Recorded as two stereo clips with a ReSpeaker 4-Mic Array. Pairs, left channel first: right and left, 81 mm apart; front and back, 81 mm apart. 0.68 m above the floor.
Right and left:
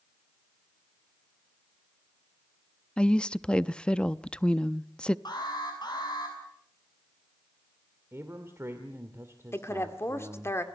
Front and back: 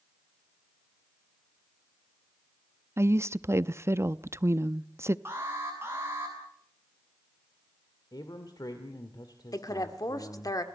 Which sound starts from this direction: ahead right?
A woman speaking, at 9.5 s.